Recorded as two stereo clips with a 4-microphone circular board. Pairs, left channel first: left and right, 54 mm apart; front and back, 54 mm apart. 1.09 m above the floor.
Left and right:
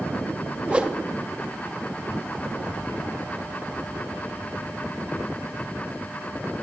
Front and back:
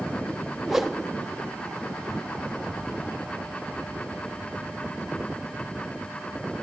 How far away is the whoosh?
About 0.7 m.